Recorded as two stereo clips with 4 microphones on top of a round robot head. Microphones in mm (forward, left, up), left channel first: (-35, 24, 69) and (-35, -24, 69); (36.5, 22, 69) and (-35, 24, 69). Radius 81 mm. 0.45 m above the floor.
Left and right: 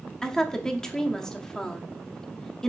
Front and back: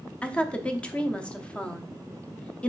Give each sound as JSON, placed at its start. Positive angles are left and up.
{"t": 0.2, "sound": "a woman speaking", "azimuth_deg": 40, "distance_m": 0.7}